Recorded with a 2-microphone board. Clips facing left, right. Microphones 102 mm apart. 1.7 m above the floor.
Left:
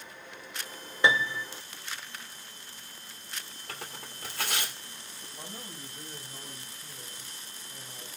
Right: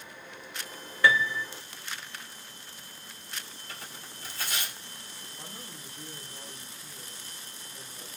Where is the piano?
20° left (ahead or behind), 0.7 m.